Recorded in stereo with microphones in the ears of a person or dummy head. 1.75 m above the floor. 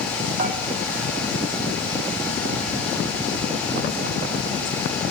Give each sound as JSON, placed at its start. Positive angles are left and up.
{"t": 0.4, "sound": "dishes clattering", "side_deg": -55, "distance_m": 2.5}